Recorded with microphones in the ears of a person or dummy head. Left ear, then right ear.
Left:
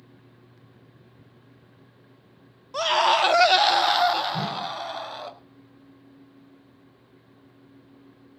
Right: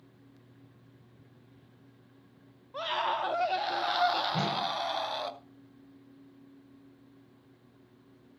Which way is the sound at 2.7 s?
75° left (ahead or behind).